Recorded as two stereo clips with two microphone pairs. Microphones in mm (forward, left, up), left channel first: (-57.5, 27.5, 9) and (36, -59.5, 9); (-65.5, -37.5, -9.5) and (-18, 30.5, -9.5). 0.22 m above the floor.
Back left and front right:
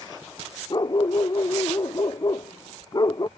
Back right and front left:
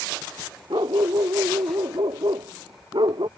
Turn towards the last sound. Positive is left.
turn(degrees=80)